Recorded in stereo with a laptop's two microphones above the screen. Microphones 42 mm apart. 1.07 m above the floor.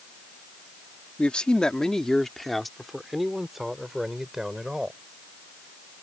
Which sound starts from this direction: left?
A man speaking, at 1.2 s.